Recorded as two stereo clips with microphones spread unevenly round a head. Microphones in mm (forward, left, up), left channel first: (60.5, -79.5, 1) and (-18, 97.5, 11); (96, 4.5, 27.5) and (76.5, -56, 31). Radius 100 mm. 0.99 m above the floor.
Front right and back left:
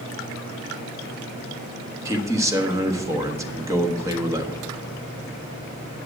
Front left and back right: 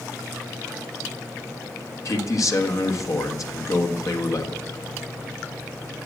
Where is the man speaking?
40° left, 1.5 m.